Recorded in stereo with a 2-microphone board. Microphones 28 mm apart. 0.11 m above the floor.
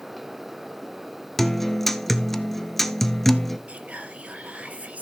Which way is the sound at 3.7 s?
50° right (ahead or behind).